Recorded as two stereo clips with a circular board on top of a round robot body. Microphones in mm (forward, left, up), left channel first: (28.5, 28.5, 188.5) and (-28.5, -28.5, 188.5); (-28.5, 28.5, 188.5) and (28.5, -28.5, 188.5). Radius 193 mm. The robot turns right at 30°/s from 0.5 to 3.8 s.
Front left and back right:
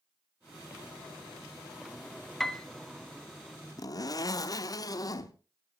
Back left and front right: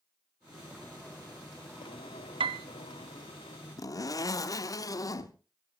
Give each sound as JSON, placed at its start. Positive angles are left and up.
{"t": 2.4, "sound": "a piano", "azimuth_deg": -40, "distance_m": 0.5}
{"t": 3.8, "sound": "a zipper", "azimuth_deg": 90, "distance_m": 0.9}